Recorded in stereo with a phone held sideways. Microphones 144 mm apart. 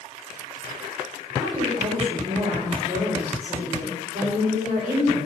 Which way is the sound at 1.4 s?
80° right.